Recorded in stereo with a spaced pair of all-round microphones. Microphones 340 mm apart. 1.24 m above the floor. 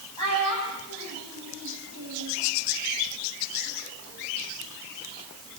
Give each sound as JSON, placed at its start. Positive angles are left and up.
{"t": 0.2, "sound": "a child speaking", "side_deg": -75, "distance_m": 6.5}